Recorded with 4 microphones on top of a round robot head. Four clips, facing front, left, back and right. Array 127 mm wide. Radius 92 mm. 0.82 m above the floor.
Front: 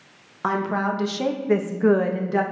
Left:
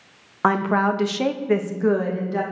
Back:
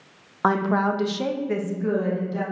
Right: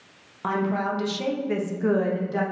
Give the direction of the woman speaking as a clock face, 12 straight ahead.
8 o'clock.